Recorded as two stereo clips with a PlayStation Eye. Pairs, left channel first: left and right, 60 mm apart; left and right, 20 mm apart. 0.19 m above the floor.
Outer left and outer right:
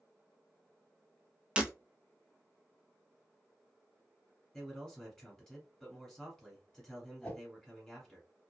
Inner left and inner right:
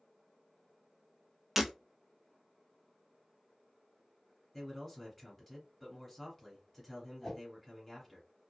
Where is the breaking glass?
20° right (ahead or behind), 0.6 m.